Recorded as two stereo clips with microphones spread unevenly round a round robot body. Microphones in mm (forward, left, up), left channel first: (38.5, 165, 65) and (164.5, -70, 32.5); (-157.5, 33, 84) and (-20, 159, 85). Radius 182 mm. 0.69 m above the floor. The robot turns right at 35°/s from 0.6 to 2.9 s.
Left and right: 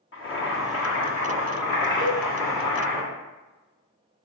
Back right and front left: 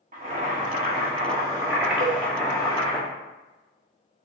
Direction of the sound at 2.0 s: 105° left.